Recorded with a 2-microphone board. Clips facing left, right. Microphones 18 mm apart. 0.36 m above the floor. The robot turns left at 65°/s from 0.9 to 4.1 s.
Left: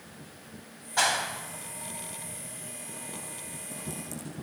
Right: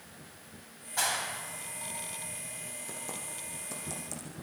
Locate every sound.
1.0 s a clap: 30° left (ahead or behind), 1.6 m; by 2.8 s 65° right (ahead or behind), 1.6 m
2.9 s typing on a keyboard: 75° right (ahead or behind), 8.5 m; by 4.3 s 25° right (ahead or behind), 8.5 m